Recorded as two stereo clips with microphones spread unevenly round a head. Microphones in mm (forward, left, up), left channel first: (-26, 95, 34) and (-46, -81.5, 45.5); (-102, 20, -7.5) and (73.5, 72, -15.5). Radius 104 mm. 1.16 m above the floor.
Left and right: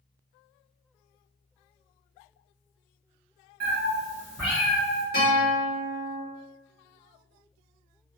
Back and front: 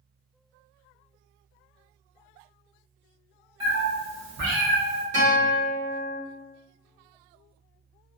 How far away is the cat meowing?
About 1.1 m.